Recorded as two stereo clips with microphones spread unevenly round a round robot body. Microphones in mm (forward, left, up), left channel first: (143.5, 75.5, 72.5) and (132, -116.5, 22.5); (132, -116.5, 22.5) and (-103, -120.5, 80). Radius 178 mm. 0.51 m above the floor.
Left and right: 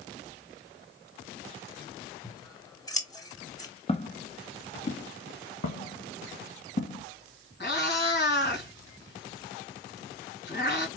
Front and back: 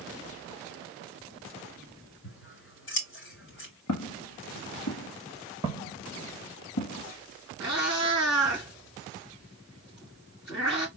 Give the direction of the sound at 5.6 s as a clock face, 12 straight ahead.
8 o'clock.